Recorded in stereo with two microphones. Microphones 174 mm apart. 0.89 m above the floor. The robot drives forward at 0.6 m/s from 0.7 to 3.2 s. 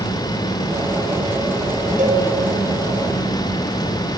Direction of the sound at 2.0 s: 45° right (ahead or behind).